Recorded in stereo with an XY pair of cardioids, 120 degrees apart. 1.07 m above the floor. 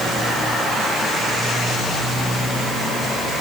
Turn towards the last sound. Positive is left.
No sound to turn to.